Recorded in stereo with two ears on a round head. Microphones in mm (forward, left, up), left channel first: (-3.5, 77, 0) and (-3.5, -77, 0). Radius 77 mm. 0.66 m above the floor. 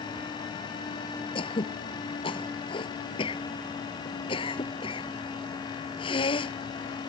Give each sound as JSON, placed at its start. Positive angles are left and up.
{"t": 1.4, "sound": "throat clearing", "side_deg": 30}